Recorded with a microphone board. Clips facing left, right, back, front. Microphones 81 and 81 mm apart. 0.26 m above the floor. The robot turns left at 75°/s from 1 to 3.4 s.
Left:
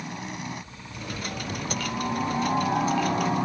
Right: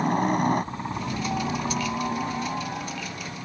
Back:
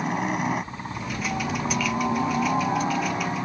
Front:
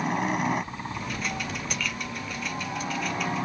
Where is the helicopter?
90° right; by 3.5 s 90° left.